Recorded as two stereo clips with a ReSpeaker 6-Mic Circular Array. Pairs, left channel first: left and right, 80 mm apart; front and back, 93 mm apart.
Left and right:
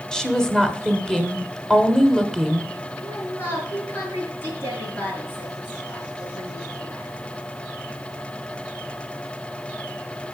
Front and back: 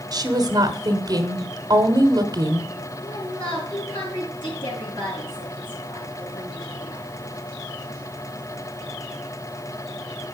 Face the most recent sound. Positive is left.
turn(degrees=30)